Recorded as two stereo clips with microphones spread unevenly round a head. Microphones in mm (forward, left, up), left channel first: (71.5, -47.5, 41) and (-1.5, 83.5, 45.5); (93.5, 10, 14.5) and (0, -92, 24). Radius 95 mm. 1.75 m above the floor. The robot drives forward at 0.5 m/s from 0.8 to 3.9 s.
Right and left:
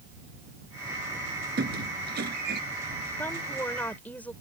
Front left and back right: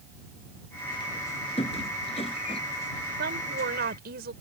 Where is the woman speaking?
140° right; by 4.3 s 145° right.